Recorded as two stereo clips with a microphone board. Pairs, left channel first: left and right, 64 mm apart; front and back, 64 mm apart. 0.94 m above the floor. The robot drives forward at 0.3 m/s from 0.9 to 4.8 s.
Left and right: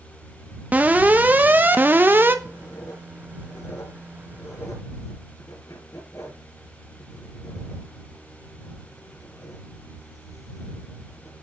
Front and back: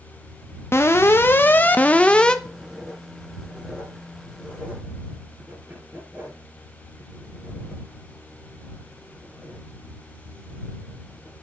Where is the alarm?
35° right, 0.9 m; by 2.4 s 70° right, 0.8 m.